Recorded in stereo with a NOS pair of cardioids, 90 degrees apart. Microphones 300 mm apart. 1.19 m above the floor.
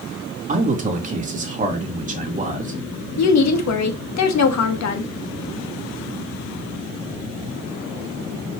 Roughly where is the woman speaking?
Ahead left.